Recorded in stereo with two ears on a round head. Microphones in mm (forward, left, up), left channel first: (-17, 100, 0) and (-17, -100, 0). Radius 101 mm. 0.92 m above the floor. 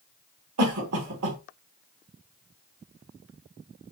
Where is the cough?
75° right (ahead or behind), 1.6 m.